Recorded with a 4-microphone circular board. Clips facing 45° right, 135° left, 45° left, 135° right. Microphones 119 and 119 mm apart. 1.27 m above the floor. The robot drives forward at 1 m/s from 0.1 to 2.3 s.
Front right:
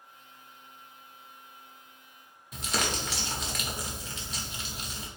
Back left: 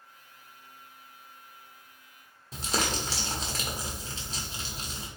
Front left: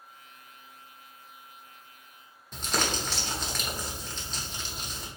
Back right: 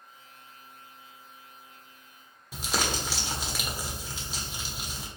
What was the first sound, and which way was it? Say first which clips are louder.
Crumpling: back left 1 dB, even; 150° left.